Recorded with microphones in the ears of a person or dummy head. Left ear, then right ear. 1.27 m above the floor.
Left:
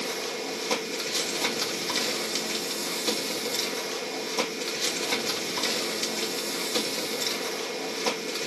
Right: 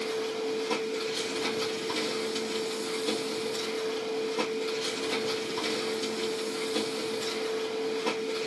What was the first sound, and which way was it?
A machine running, 65° left (ahead or behind).